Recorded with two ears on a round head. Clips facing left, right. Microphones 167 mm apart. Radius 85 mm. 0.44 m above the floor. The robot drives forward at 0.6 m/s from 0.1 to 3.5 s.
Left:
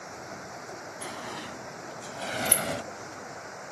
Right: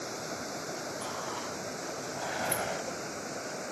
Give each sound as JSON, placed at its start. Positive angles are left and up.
{"t": 0.0, "sound": "running water", "side_deg": -45}
{"t": 1.0, "sound": "a sliding door", "side_deg": 25}